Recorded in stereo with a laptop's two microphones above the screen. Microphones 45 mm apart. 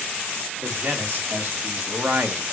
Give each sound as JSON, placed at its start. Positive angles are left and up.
{"t": 0.6, "sound": "a man speaking", "side_deg": -40, "distance_m": 2.0}